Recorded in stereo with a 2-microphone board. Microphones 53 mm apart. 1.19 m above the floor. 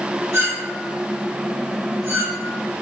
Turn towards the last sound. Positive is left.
turn(degrees=-70)  # may be behind; listen again after turning